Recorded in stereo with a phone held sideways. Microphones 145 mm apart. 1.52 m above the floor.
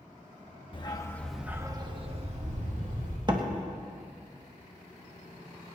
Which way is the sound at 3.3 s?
30° right (ahead or behind).